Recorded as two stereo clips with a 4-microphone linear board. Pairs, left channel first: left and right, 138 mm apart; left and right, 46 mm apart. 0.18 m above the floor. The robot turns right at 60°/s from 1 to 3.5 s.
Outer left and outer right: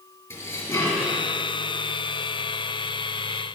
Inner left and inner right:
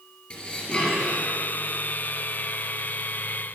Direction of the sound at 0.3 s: 15° left (ahead or behind).